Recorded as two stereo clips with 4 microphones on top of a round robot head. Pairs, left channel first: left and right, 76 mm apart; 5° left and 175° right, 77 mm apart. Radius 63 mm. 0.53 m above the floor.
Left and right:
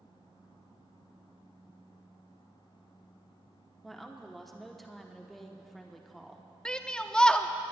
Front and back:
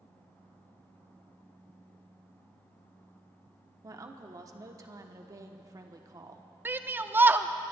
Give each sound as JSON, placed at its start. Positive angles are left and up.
{"t": 3.8, "sound": "a woman speaking", "azimuth_deg": 175, "distance_m": 1.1}
{"t": 6.7, "sound": "a shout", "azimuth_deg": 160, "distance_m": 0.7}